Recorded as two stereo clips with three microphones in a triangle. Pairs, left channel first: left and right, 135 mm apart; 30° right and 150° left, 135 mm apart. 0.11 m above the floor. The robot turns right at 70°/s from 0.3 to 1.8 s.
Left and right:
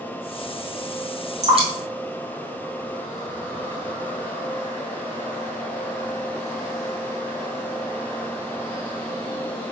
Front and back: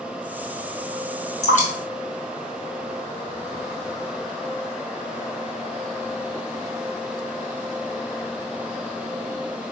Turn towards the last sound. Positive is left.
turn(degrees=-30)